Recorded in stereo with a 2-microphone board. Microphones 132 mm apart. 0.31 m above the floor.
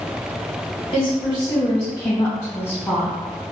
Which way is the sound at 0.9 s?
35° left (ahead or behind).